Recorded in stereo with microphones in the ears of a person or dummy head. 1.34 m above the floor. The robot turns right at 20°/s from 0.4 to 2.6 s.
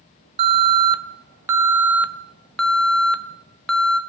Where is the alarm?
35° right, 0.5 m; by 4.0 s 10° left, 0.5 m.